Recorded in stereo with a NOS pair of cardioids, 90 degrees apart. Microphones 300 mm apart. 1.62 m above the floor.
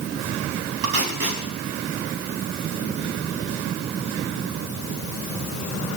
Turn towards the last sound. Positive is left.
turn(degrees=-50)